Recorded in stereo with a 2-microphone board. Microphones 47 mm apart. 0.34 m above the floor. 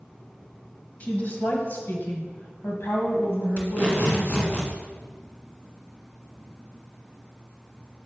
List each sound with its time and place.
1.0 s a woman speaking: 35° left (ahead or behind), 1.7 m; by 4.6 s 70° left (ahead or behind), 2.5 m
3.6 s tape being pulled: 30° left (ahead or behind), 2.0 m